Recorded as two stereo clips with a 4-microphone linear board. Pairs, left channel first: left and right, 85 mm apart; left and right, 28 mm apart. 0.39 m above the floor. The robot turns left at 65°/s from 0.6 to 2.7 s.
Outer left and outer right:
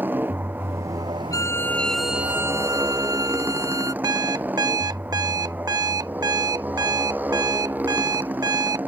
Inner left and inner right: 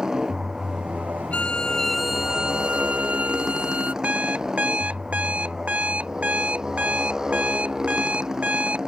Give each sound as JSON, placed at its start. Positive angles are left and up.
{"t": 0.0, "sound": "a motorcycle", "azimuth_deg": -25}
{"t": 1.3, "sound": "a violin", "azimuth_deg": 45}
{"t": 4.0, "sound": "an alarm clock", "side_deg": -50}